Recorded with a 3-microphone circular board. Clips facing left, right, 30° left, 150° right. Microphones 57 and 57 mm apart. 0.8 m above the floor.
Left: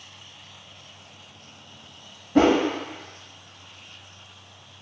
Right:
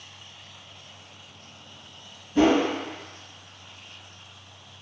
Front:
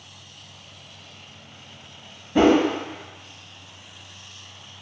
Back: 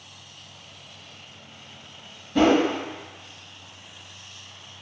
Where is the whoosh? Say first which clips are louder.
Left 2 dB, front 2 dB; 95° left, 1.0 m.